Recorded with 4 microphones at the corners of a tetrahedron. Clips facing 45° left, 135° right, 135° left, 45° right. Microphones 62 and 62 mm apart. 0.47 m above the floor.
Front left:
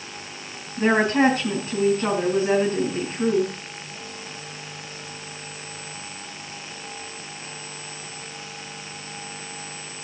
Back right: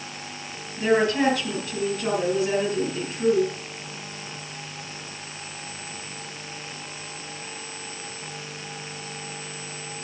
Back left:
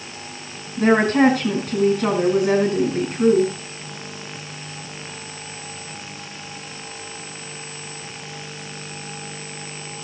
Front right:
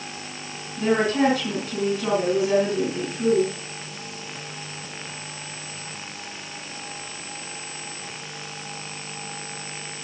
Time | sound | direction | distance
0.8 | a woman speaking | 100° left | 3.5 m